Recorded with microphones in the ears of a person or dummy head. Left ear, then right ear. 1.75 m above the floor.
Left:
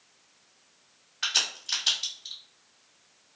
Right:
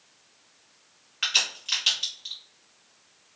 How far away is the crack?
About 1.4 m.